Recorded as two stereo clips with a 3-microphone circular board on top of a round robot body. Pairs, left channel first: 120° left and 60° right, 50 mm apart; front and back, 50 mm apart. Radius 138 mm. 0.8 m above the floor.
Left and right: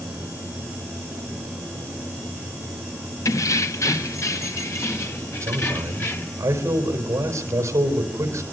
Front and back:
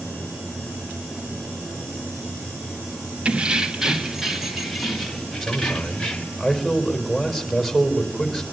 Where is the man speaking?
95° right, 4.5 m.